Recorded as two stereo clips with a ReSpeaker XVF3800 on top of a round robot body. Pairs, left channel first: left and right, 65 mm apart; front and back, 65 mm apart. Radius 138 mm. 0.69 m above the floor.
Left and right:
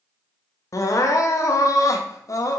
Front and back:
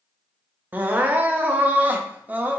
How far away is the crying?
About 0.8 m.